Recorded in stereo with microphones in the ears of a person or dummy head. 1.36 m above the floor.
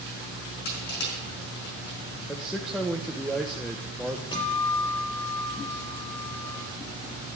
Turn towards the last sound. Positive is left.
turn(degrees=25)  # may be behind; listen again after turning